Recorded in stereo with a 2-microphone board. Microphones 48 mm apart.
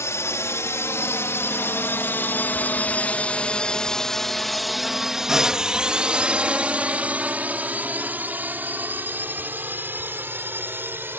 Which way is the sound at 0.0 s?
75° left (ahead or behind).